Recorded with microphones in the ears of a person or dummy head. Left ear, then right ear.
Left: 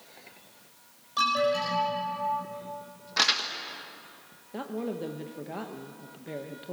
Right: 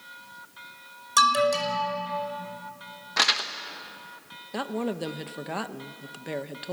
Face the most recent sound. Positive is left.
turn(degrees=-40)  # may be behind; listen again after turning